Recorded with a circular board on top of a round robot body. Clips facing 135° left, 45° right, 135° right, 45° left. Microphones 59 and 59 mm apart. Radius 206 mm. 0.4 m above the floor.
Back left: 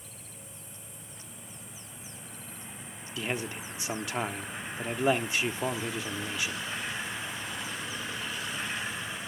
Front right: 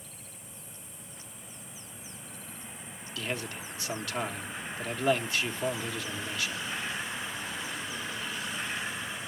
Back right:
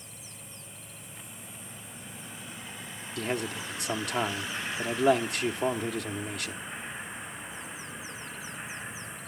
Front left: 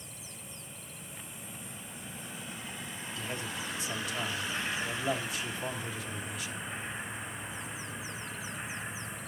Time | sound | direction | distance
3.2 | a man speaking | 155° right | 1.4 m